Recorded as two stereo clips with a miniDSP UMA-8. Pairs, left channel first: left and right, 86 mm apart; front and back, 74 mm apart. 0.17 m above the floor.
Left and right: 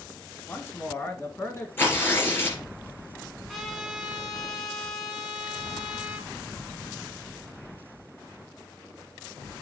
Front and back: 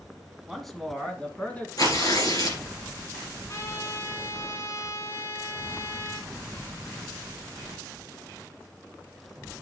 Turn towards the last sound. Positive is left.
turn(degrees=0)